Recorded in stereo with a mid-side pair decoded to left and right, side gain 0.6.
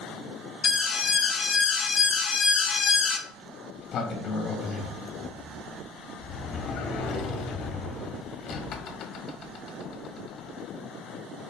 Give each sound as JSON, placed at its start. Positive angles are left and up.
{"t": 0.6, "sound": "an alarm", "azimuth_deg": 25, "distance_m": 0.7}
{"t": 3.3, "sound": "a sliding door", "azimuth_deg": 50, "distance_m": 1.1}